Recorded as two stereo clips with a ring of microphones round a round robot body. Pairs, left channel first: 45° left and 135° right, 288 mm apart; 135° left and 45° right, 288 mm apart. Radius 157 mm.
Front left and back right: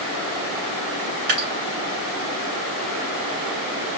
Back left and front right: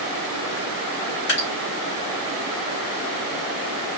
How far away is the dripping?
About 3.5 m.